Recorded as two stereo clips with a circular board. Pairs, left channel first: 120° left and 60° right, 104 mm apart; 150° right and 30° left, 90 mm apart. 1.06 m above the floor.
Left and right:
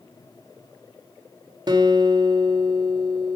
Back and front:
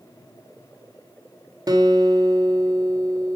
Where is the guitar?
15° right, 1.5 m.